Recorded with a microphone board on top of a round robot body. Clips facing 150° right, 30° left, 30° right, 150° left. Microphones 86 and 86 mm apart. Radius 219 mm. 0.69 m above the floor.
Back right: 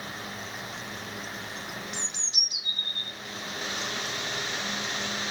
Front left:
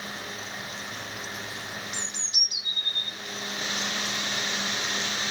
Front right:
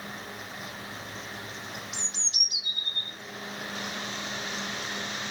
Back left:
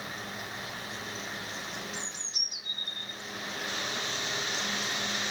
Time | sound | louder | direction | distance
1.9 | a bird | front left 1 dB, even | 10° right | 0.5 m